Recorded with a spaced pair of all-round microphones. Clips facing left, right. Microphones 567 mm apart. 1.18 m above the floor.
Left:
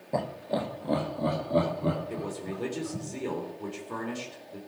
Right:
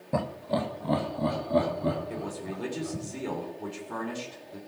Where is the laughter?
35° right (ahead or behind), 0.9 m; by 3.0 s 15° right (ahead or behind), 4 m.